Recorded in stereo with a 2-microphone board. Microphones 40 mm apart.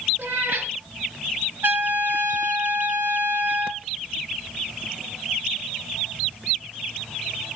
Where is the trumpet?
55° right (ahead or behind), 1.3 m.